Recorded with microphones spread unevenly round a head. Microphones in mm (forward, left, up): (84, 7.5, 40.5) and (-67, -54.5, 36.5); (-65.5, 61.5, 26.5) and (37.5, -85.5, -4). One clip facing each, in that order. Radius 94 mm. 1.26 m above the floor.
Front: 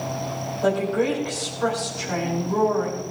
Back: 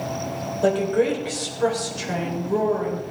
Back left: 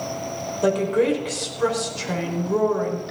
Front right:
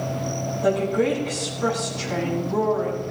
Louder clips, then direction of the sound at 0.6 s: Back 2 dB, back left 2 dB; 140° left.